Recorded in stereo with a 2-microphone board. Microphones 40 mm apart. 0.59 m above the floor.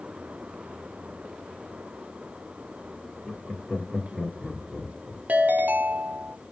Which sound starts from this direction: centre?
Laughter, at 3.2 s.